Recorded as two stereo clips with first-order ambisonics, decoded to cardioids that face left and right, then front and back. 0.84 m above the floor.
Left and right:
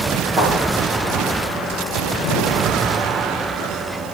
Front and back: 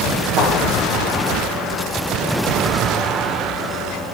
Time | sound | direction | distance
0.4 | a thud | 160° right | 5.5 m